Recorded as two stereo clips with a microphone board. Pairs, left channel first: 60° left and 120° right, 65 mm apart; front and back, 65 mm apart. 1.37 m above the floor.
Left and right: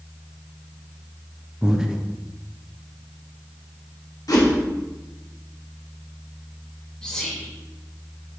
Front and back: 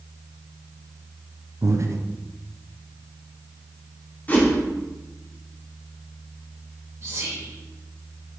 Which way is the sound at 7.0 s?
135° left.